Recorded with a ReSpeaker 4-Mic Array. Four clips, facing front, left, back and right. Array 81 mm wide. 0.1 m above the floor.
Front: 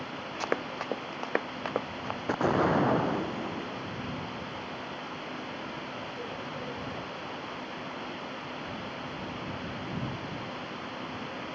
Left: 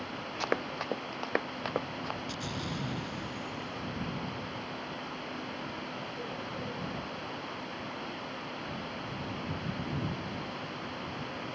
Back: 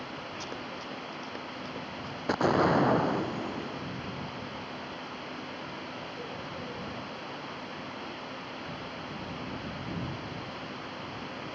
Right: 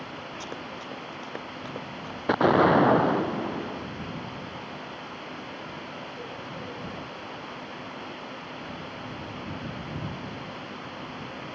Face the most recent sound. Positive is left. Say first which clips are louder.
# right 19 dB, back 1 dB
turn(degrees=-95)